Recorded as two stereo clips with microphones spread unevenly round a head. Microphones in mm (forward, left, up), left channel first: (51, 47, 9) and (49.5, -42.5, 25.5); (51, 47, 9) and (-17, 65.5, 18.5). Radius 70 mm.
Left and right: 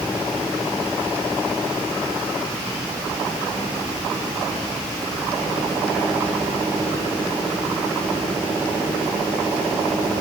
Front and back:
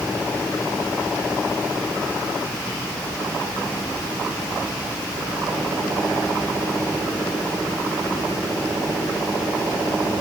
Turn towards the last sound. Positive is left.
No sound to turn to.